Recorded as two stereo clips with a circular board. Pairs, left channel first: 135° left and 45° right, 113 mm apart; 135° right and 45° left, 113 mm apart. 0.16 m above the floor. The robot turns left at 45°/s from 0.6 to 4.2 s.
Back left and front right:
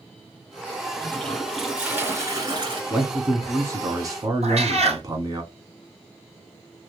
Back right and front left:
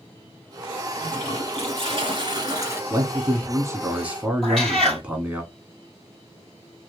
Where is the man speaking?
30° left, 1.2 m; by 5.4 s 25° right, 1.2 m.